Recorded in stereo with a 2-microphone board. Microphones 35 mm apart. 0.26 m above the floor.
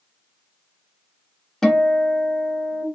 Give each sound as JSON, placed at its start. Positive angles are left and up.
{"t": 1.6, "sound": "a guitar", "side_deg": 10, "distance_m": 1.6}